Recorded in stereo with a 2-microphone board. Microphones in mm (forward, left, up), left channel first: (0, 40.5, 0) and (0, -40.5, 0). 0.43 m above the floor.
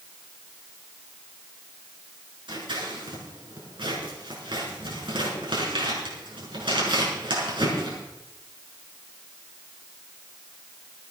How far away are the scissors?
About 5 m.